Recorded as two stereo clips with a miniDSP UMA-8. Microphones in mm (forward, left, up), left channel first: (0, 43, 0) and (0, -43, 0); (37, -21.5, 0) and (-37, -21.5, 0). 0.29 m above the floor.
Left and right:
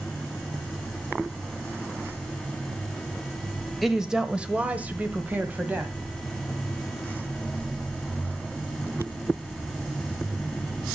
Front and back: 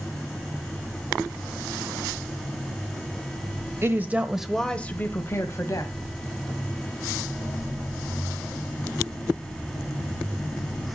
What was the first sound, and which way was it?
A woman speaking, 175° right.